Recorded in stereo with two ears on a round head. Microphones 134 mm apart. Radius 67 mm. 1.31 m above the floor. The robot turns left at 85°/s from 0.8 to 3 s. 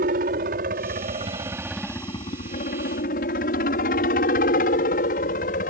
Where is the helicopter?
65° right (ahead or behind); by 5.7 s 60° left (ahead or behind).